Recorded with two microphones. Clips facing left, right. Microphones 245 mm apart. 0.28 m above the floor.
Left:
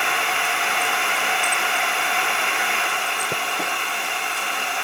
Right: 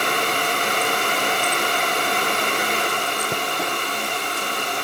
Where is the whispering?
No whispering in this recording.